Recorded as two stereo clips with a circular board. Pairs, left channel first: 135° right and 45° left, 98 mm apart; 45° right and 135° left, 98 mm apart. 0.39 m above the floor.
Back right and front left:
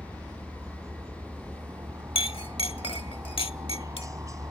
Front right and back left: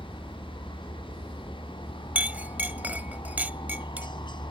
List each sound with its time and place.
0.0 s a helicopter: 10° right
2.1 s a clink: 150° right